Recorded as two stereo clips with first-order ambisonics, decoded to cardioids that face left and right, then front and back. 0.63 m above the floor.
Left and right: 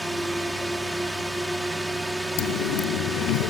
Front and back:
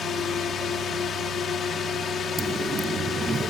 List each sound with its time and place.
0.0 s a drone: 10° right
2.4 s a dropped coin: 105° left